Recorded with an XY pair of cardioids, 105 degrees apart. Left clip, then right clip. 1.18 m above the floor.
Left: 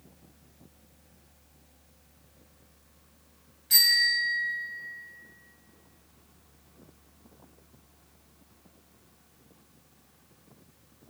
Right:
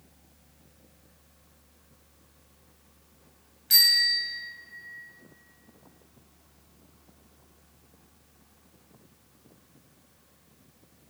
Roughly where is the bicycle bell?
Ahead right.